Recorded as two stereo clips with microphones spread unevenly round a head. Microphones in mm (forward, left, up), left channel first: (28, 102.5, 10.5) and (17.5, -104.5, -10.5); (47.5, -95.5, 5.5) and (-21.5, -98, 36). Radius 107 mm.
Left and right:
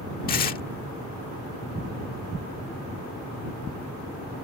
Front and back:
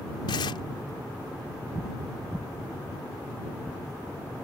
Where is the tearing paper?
40° left.